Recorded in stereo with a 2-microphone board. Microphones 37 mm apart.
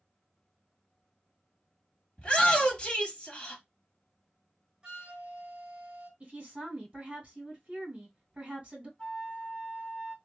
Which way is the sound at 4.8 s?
25° right (ahead or behind).